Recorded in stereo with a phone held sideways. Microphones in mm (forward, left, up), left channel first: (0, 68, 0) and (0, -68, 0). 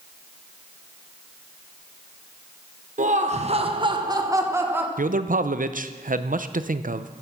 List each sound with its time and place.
3.0 s laughter: 70° right (ahead or behind), 0.8 m; by 4.9 s 15° right (ahead or behind), 1.3 m
5.0 s a man speaking: 85° right, 0.6 m